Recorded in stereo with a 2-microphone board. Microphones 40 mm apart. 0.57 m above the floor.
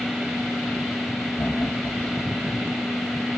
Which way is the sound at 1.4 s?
70° left (ahead or behind).